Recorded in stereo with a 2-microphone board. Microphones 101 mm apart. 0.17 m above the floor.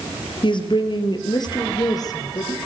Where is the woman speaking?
50° left (ahead or behind), 4 m; by 2.6 s 35° left (ahead or behind), 4.5 m.